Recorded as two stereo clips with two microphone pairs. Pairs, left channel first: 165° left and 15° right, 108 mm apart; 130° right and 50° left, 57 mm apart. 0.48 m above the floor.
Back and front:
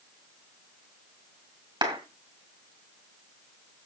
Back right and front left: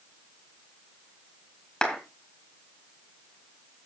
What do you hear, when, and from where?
1.8 s a clap: 55° right, 4 m